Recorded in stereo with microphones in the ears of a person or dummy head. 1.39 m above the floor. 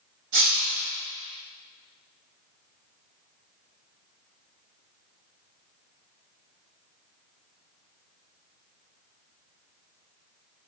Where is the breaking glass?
50° right (ahead or behind), 0.9 m.